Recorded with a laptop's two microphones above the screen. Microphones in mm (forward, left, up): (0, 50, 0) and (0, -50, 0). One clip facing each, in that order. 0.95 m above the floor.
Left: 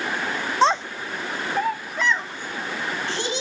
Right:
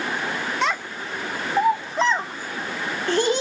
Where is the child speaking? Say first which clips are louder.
Left 9 dB; 35° left (ahead or behind), 0.5 m; by 3.4 s 55° right (ahead or behind), 1.4 m.